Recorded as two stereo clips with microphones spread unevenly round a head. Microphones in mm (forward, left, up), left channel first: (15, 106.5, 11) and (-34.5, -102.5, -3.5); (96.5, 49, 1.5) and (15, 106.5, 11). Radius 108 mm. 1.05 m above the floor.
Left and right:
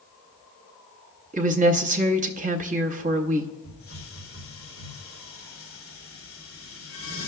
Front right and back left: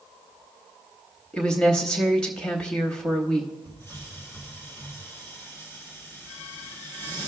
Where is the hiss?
30° left, 1.9 m.